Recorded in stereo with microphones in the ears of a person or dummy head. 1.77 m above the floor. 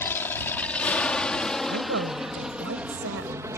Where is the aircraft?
15° left (ahead or behind); by 3.6 s 20° right (ahead or behind).